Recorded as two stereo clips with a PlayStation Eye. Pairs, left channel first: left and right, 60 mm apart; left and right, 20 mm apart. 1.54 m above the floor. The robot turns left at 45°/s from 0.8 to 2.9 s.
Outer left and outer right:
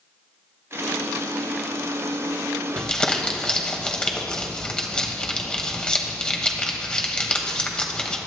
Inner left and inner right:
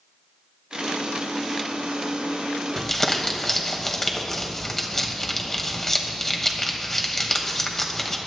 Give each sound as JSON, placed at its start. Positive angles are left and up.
{"t": 2.8, "sound": "crumpling", "side_deg": 15, "distance_m": 1.4}